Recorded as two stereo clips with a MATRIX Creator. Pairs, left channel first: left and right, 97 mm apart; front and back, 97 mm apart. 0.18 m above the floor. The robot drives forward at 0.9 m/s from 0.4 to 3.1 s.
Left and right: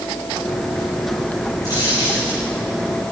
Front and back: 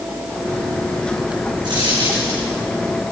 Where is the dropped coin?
135° left, 5.5 m; by 2.4 s 140° left, 6.5 m.